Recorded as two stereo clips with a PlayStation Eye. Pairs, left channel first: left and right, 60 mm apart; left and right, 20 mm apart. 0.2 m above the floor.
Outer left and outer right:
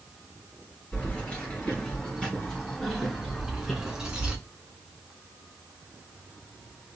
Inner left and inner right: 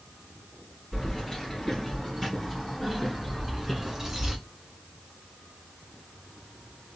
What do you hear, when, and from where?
0.9 s keys jangling: 25° left (ahead or behind), 2.5 m; by 4.4 s 15° right (ahead or behind), 1.5 m